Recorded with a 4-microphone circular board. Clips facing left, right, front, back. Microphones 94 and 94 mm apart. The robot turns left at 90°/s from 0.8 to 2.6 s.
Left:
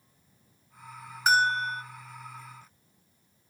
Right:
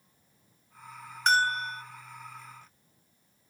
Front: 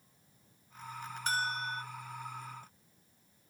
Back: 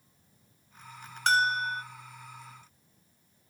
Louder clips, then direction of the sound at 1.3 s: Left 2 dB, back 9 dB; 175° left.